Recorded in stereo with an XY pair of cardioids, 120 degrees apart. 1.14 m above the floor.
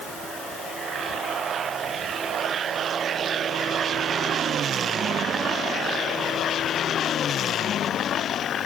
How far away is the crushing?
No crushing in this recording.